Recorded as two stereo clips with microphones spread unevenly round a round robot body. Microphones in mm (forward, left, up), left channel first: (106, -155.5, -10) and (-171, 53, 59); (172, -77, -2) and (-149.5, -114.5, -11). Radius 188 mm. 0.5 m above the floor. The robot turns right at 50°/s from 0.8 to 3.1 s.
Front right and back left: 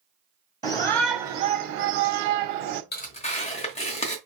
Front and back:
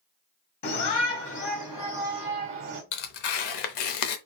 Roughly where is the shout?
Ahead left.